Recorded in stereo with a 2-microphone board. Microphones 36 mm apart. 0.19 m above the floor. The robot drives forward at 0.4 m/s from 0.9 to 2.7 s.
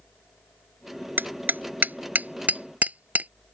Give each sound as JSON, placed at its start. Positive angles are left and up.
{"t": 1.2, "sound": "hammering", "side_deg": -65}